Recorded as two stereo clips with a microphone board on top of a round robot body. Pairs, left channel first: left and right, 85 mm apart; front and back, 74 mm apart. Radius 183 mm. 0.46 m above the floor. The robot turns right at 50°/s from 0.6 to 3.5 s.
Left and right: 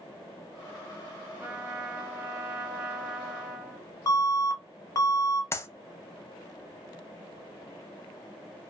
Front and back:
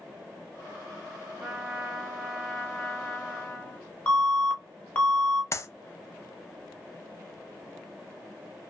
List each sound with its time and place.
1.4 s a trumpet: 105° right, 1.1 m; by 3.9 s straight ahead, 1.1 m
4.1 s an alarm: 60° left, 1.1 m
5.5 s a clap: 40° left, 0.6 m